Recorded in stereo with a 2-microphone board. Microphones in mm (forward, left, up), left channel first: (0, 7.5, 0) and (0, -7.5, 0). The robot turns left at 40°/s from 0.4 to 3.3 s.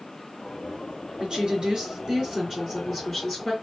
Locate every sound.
1.2 s a woman speaking: 90° right, 4 m; by 3.5 s 175° right, 4 m